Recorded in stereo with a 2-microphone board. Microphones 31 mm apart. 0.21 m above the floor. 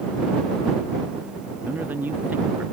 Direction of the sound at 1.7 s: 75° right (ahead or behind).